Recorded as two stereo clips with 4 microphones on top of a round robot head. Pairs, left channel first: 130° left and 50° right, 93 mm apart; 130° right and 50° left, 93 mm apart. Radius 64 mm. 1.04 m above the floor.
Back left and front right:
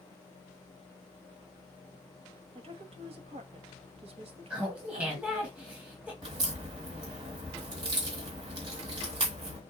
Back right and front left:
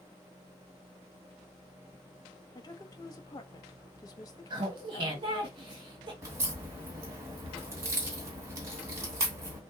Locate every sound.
2.5 s a woman speaking: 75° right, 1.2 m
4.5 s laughter: 25° left, 1.6 m
6.2 s a crack: 10° right, 2 m